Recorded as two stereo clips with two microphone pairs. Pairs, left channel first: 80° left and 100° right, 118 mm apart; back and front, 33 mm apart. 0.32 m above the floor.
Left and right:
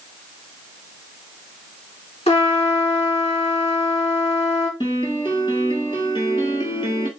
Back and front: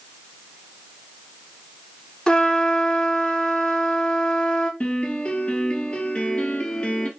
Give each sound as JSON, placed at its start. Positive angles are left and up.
{"t": 2.3, "sound": "a trumpet", "azimuth_deg": 105, "distance_m": 1.4}
{"t": 4.8, "sound": "a piano", "azimuth_deg": 120, "distance_m": 1.1}